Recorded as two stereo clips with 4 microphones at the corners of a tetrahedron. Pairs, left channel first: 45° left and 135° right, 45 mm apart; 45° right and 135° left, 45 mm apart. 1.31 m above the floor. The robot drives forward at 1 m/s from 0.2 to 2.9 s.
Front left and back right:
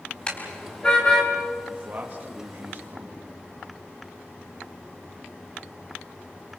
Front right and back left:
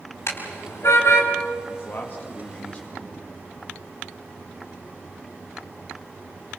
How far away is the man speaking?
About 2 m.